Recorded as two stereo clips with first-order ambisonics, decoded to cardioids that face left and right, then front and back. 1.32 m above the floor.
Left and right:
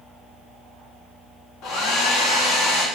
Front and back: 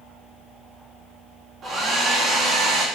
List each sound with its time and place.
1.6 s a hair dryer: 125° left, 1.8 m